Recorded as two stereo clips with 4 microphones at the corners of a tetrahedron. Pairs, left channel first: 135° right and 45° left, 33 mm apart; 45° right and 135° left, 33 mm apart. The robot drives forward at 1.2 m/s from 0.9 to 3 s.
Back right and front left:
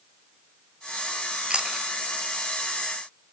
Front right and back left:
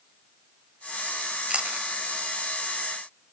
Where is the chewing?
95° left, 0.9 m; by 1.9 s 130° left, 1.0 m.